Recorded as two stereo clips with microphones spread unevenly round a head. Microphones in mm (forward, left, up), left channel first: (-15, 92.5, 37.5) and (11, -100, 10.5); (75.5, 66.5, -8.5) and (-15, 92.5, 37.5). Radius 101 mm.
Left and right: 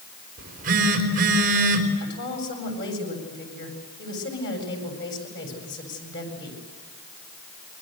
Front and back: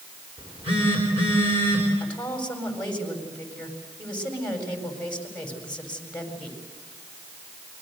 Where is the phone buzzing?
130° right, 4.5 m.